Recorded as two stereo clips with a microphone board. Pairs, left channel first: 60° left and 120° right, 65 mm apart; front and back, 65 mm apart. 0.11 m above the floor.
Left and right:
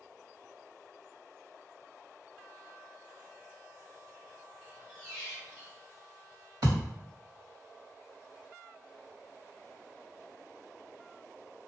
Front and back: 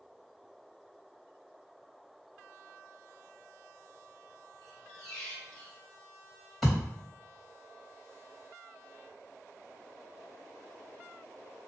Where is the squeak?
65° right, 1.2 m.